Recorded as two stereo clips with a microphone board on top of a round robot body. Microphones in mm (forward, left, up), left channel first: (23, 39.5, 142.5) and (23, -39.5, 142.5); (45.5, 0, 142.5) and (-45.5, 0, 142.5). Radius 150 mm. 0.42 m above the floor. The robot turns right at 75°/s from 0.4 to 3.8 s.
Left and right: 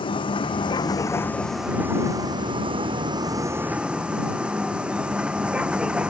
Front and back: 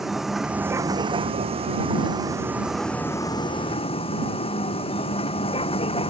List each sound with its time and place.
0.0 s a vehicle: 90° left; by 6.1 s 15° right